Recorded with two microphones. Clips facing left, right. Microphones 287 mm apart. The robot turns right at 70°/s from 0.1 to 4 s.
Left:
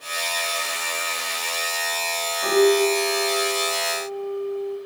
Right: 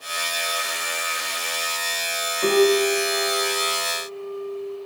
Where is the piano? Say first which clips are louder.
Even; 130° right, 2.5 m; by 4.8 s 15° right, 2.5 m.